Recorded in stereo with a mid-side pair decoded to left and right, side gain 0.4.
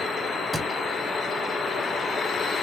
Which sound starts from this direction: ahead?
A thud, at 0.5 s.